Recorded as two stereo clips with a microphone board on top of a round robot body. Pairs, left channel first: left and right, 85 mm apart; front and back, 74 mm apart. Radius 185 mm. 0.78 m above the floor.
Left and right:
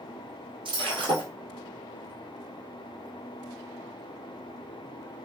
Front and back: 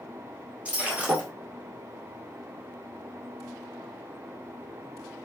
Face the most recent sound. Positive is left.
turn(degrees=-110)